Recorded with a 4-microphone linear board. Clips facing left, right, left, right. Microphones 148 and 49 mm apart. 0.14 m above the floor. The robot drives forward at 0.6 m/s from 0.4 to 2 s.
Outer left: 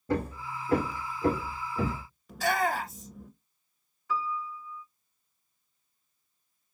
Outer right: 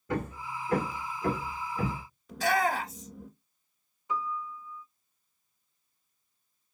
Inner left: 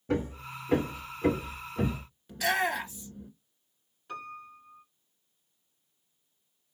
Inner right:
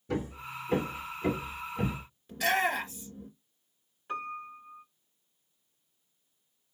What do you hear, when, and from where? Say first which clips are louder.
0.1 s hammering: outer left 3 dB, inner left 3 dB; 35° left (ahead or behind), 2.0 m; by 2.0 s 25° left (ahead or behind), 3 m
2.3 s a shout: outer right 1 dB, even; centre (ahead or behind), 2 m
4.1 s a piano: outer left 1 dB, inner right 4 dB; 20° right (ahead or behind), 1.1 m